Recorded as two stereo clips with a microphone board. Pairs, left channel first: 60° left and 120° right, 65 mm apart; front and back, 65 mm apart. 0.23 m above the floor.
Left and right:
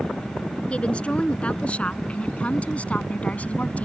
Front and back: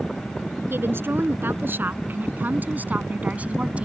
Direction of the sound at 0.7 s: 130° left.